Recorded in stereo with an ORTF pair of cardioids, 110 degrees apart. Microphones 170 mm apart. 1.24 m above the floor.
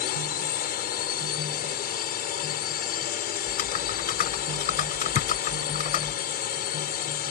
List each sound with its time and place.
0.0 s a drone: 65° left
3.5 s typing on a keyboard: 60° left
5.2 s a thud: 45° left